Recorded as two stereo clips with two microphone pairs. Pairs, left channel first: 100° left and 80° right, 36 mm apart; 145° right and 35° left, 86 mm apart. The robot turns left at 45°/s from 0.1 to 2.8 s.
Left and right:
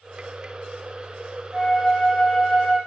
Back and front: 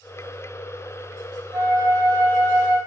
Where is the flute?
10° right, 1.5 m; by 2.8 s 65° right, 1.5 m.